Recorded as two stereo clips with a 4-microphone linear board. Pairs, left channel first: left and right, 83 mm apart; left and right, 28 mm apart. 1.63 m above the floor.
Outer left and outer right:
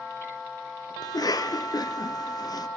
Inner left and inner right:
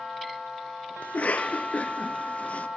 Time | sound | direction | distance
1.0 | a cough | 50° left (ahead or behind) | 0.9 m